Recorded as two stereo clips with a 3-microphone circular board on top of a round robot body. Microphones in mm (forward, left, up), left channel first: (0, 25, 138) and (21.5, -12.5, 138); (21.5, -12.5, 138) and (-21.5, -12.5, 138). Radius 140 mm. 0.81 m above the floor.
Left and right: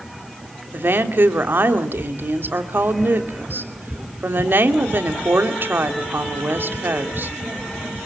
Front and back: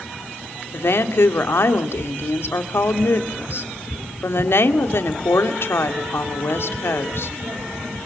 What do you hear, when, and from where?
0.7 s a woman speaking: 25° right, 2.5 m